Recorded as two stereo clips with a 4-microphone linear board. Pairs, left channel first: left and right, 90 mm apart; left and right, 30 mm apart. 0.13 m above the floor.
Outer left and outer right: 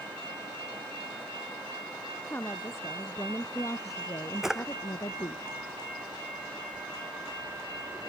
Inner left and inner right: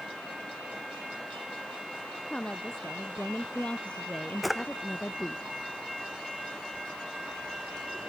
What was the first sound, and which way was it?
A woman speaking, 25° left (ahead or behind).